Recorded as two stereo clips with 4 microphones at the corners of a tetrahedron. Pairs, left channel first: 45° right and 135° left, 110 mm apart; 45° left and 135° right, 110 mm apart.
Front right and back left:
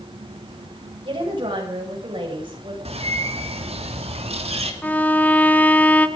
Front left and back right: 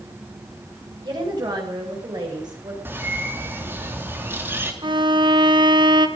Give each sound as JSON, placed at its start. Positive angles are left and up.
{"t": 1.0, "sound": "a woman speaking", "azimuth_deg": 175, "distance_m": 6.5}
{"t": 2.9, "sound": "a bird", "azimuth_deg": 155, "distance_m": 2.5}
{"t": 4.8, "sound": "a violin", "azimuth_deg": -115, "distance_m": 1.2}